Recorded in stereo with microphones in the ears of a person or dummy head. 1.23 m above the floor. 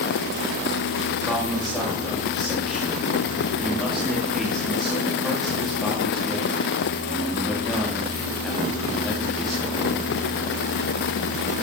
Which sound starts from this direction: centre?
A man speaking, at 1.3 s.